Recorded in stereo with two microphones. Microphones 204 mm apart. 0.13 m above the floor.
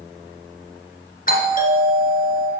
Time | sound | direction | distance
1.3 | a doorbell | 40° left (ahead or behind) | 2.0 m